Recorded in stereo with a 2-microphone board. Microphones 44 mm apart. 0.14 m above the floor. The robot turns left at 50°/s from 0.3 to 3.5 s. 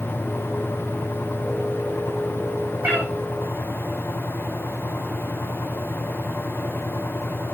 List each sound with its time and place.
2.8 s a cat meowing: 40° right (ahead or behind), 3.5 m; by 3.1 s 50° right (ahead or behind), 3.5 m